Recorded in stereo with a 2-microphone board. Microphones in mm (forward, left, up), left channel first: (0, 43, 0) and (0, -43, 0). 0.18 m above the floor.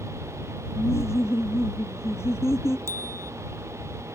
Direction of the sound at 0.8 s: 30° left (ahead or behind).